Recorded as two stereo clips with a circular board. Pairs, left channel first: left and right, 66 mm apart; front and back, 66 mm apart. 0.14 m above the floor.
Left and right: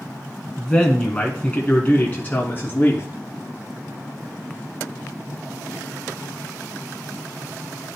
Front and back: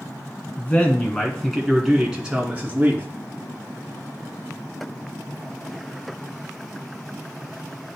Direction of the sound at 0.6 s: 25° left.